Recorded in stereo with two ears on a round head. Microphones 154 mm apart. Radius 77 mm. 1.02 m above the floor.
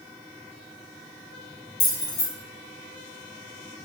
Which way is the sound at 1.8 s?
70° left (ahead or behind).